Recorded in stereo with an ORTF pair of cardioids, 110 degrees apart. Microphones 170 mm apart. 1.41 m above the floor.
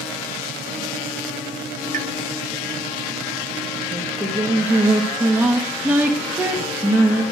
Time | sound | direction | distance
1.9 | a pop | 50° right | 1.1 m
3.9 | singing | 10° right | 2 m